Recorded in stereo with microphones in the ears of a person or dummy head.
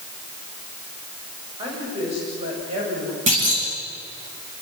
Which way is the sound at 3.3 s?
45° right (ahead or behind).